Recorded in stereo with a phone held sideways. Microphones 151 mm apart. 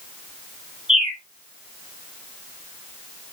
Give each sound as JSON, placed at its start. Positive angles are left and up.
{"t": 0.9, "sound": "a bird", "side_deg": -5, "distance_m": 2.0}